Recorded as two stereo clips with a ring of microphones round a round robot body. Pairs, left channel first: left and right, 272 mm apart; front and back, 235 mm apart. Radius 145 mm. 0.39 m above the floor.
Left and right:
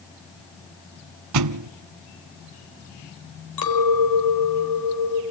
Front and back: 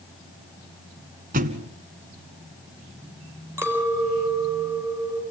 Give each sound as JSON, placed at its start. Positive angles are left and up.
{"t": 1.3, "sound": "a thud", "azimuth_deg": -120, "distance_m": 0.9}
{"t": 3.6, "sound": "a clink", "azimuth_deg": 100, "distance_m": 4.5}